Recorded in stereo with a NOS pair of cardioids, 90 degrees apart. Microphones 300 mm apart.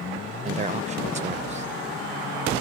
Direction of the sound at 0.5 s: 25° right.